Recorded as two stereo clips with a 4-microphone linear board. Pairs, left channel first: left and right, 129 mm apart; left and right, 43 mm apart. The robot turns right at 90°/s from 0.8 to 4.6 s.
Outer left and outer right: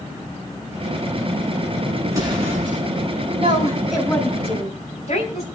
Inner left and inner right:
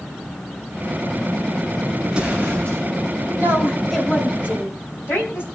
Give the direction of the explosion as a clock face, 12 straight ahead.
5 o'clock.